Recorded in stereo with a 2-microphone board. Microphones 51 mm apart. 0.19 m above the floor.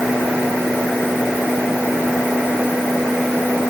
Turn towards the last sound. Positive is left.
No sound to turn to.